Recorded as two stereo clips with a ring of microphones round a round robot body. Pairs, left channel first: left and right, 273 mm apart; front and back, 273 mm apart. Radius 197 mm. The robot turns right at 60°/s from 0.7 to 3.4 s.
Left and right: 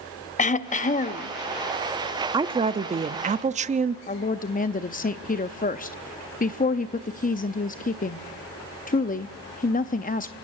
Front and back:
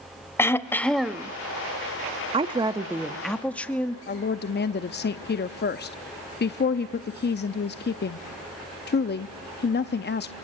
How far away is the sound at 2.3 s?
About 0.6 m.